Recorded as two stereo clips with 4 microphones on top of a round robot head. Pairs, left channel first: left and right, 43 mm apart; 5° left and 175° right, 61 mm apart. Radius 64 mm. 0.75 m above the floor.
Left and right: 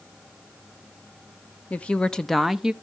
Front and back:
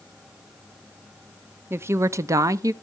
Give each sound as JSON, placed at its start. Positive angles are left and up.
{"t": 1.7, "sound": "a woman speaking", "azimuth_deg": 135, "distance_m": 0.8}